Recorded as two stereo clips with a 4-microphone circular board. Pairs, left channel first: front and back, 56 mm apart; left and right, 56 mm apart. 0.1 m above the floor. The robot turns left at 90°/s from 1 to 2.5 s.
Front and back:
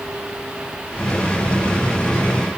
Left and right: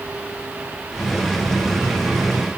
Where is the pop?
I don't hear a pop.